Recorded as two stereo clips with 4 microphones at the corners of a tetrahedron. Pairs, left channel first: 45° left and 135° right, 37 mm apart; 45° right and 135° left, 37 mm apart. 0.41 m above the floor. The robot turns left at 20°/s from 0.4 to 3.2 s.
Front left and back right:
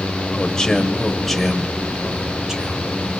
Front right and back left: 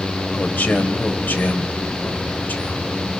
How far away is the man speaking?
About 2 m.